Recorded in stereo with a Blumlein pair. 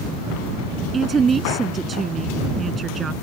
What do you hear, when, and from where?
0.9 s a woman speaking: 15° right